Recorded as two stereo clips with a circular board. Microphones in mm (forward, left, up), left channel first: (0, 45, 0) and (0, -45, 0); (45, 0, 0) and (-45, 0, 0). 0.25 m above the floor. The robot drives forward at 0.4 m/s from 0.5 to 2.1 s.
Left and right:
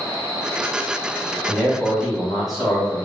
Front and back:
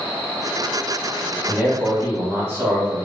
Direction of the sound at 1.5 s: 170° right.